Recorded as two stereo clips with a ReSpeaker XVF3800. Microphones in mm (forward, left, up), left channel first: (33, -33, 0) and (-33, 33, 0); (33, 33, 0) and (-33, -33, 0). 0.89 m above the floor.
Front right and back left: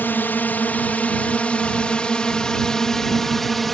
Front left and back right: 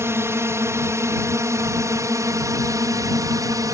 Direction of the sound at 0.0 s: 100° right.